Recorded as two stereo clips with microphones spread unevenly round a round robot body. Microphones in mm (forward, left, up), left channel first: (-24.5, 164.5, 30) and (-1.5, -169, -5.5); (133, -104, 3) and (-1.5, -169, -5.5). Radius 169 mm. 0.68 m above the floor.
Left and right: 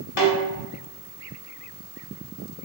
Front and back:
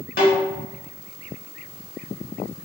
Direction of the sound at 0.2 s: 50° left.